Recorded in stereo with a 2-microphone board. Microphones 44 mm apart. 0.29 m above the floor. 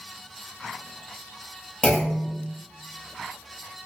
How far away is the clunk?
About 0.8 m.